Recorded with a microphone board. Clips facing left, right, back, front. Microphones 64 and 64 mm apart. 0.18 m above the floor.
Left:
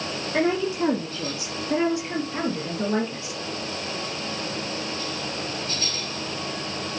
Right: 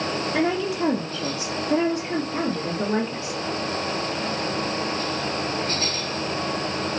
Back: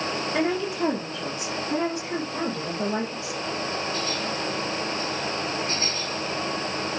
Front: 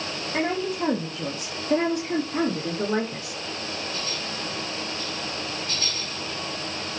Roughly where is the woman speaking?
Ahead left.